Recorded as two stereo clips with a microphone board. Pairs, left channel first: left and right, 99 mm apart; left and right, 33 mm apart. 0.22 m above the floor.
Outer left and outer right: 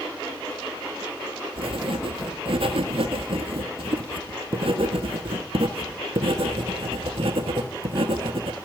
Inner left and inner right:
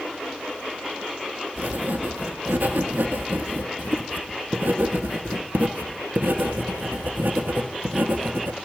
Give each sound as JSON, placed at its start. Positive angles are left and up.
{"t": 1.6, "sound": "writing", "side_deg": -65, "distance_m": 1.0}